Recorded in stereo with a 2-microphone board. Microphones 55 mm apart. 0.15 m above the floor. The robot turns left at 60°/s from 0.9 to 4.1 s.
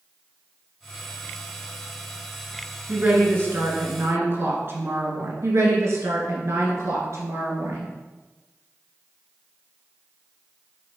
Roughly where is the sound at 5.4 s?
Right.